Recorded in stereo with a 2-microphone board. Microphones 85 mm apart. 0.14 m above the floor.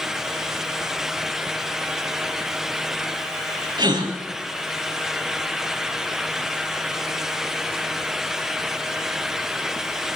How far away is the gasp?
About 4 m.